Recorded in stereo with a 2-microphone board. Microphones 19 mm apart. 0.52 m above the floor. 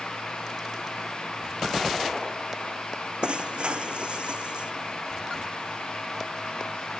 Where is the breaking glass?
70° right (ahead or behind).